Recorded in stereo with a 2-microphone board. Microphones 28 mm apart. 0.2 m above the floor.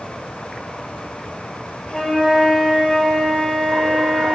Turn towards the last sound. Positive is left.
turn(degrees=25)  # may be behind; listen again after turning